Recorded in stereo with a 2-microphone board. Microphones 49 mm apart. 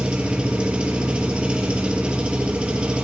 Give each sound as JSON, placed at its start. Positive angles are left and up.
{"t": 0.0, "sound": "an engine running", "side_deg": -20, "distance_m": 1.9}